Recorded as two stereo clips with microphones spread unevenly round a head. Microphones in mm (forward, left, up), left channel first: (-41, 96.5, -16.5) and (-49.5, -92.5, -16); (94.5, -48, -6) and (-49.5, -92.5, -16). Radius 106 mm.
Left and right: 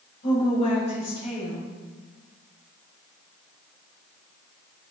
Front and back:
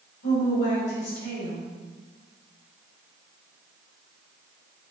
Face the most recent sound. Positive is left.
turn(degrees=30)